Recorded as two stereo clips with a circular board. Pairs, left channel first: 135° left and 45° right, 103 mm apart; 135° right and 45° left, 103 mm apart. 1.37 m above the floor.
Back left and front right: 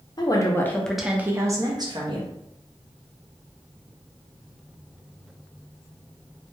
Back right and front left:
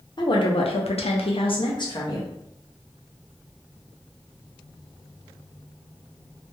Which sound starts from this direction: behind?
A woman speaking, at 0.2 s.